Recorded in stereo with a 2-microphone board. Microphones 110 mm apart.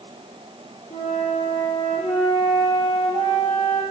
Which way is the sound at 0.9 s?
75° left (ahead or behind).